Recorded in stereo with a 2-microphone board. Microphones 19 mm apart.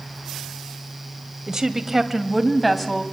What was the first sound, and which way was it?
A woman speaking, 30° right (ahead or behind).